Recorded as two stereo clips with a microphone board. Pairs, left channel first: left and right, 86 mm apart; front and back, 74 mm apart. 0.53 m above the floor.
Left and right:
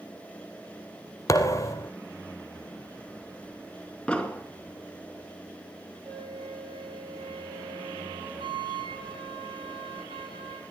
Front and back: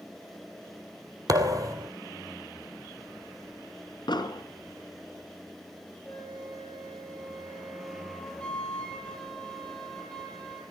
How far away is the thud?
About 1.7 m.